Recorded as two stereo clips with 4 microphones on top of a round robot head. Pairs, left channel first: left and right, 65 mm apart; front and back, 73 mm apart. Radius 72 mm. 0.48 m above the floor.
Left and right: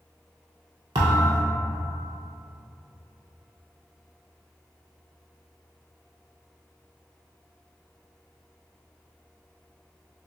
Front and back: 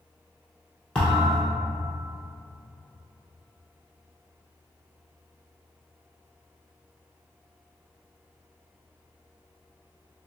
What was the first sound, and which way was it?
A thud, 80° right.